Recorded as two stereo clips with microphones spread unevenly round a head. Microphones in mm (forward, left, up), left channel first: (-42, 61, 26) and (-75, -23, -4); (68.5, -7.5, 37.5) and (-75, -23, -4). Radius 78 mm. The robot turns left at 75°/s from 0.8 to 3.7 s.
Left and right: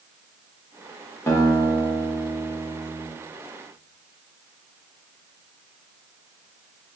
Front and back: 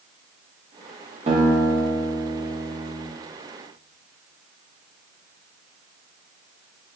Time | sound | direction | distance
1.3 | a guitar | 130° left | 1.8 m